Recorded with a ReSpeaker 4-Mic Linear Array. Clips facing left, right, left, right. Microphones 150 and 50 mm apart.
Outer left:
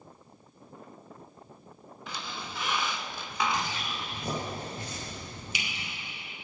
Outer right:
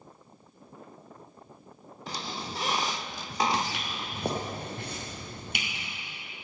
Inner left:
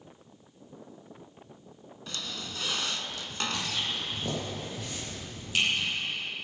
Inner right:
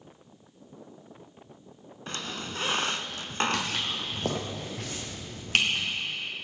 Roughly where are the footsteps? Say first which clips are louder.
Outer right 2 dB, inner right 2 dB; right.